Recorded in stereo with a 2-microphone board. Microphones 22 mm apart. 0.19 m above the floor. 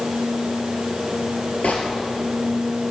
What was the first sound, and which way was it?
A gunshot, 60° left (ahead or behind).